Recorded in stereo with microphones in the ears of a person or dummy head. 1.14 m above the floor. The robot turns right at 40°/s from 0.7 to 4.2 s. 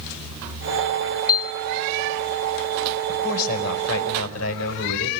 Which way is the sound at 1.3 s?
20° left (ahead or behind).